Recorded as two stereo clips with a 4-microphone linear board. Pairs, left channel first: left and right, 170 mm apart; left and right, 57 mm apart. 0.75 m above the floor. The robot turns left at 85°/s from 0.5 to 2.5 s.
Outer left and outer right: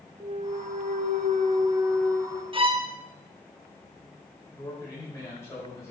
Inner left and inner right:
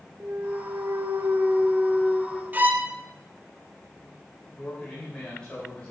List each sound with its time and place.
0.2 s a clunk: 50° right, 0.8 m; by 2.4 s 145° left, 0.8 m
2.5 s a violin: 30° right (ahead or behind), 0.9 m
4.5 s a man speaking: 15° left (ahead or behind), 4 m